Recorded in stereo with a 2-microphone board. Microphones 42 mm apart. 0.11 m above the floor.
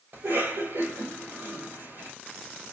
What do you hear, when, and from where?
0.1 s a cough: 70° right (ahead or behind), 3.5 m